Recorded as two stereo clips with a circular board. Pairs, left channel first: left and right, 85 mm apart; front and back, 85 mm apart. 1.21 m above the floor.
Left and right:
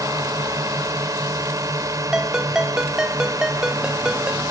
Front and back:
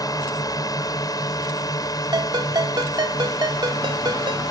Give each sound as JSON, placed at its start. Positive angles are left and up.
{"t": 0.0, "sound": "a drone", "azimuth_deg": -40}
{"t": 2.1, "sound": "a ringtone", "azimuth_deg": -170}